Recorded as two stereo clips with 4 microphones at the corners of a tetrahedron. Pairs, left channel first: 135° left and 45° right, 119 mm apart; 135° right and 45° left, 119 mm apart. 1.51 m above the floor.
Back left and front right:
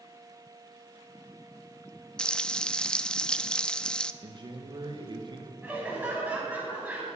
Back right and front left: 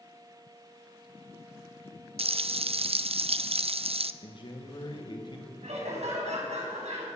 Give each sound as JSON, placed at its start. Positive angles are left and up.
{"t": 2.2, "sound": "frying", "azimuth_deg": 55, "distance_m": 0.5}
{"t": 4.2, "sound": "a man speaking", "azimuth_deg": -90, "distance_m": 1.3}
{"t": 5.6, "sound": "laughter", "azimuth_deg": 35, "distance_m": 6.5}